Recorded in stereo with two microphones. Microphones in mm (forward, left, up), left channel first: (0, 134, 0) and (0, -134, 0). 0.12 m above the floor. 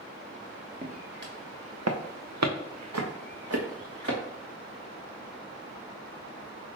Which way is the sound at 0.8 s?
30° right (ahead or behind).